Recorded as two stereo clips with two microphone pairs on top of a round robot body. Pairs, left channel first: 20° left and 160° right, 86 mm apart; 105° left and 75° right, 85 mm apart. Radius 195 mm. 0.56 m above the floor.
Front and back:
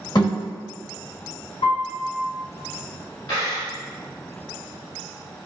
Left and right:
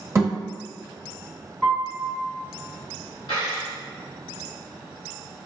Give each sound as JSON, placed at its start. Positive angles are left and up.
{"t": 0.1, "sound": "a thud", "azimuth_deg": -15, "distance_m": 1.0}
{"t": 1.6, "sound": "a piano", "azimuth_deg": 20, "distance_m": 0.9}
{"t": 3.3, "sound": "a dropped coin", "azimuth_deg": 65, "distance_m": 0.8}